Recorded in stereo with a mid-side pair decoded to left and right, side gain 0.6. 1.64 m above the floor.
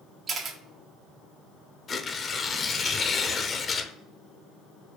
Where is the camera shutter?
40° right, 0.9 m.